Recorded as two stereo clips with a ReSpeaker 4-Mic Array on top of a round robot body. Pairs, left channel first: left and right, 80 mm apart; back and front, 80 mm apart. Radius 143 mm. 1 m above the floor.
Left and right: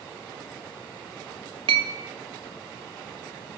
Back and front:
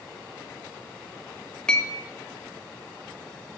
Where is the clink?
100° right, 0.6 m.